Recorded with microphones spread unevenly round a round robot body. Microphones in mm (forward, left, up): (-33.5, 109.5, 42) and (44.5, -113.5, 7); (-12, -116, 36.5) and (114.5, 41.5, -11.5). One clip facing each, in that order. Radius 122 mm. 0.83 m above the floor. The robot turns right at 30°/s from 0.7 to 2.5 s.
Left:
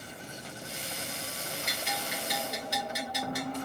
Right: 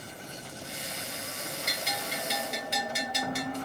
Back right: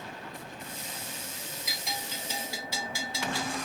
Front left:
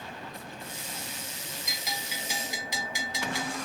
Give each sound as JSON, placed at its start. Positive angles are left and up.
{"t": 1.7, "sound": "a bell", "azimuth_deg": -35, "distance_m": 0.7}